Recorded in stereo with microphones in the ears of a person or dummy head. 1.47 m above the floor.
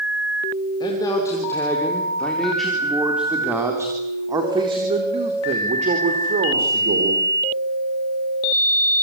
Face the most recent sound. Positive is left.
turn(degrees=-50)  # may be behind; listen again after turning